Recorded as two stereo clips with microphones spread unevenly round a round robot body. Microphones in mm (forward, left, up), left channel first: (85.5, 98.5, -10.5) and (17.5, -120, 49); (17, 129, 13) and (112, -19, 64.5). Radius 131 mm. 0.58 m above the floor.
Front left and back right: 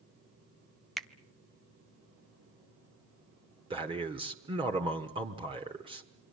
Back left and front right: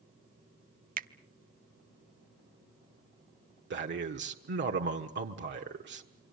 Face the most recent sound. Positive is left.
turn(degrees=-35)